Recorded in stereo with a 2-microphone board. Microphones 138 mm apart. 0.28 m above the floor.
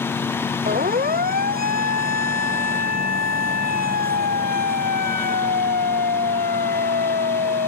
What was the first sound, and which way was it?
A siren, 85° right.